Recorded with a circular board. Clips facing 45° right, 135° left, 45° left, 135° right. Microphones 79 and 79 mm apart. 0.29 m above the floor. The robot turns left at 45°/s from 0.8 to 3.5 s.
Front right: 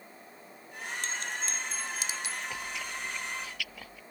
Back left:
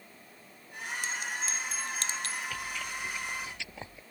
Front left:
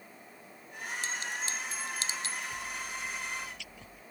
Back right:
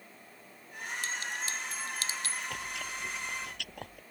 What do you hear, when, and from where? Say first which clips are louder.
1.0 s a clink: back left 1 dB, even; 70° left; by 2.4 s 10° left
2.5 s chewing: even, even; 115° right; by 4.0 s 160° right